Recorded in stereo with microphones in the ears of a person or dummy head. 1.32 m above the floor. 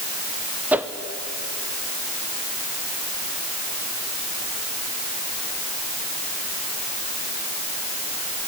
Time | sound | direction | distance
0.7 | a whoosh | 5° right (ahead or behind) | 0.7 m